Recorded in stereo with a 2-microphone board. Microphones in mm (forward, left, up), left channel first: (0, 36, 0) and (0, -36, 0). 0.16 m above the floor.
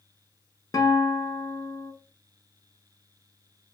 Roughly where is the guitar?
Left.